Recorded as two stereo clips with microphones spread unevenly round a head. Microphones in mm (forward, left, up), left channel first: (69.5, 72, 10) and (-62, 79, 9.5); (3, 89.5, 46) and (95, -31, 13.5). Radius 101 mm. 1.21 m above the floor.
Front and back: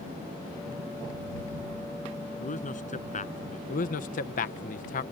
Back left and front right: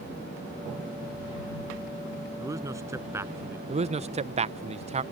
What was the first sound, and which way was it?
A man speaking, 20° left.